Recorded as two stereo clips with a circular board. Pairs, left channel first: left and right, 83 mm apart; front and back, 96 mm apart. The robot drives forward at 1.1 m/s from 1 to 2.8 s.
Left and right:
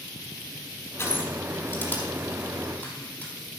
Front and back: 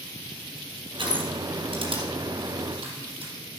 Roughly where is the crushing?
Behind left.